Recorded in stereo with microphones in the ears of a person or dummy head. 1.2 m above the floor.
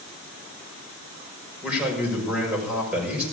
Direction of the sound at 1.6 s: 5° right (ahead or behind).